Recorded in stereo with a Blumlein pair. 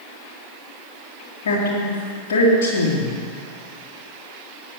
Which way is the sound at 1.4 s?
55° left.